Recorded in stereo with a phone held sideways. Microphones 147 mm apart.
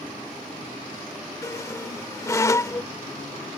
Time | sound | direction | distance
1.4 | a squeak | 20° left (ahead or behind) | ?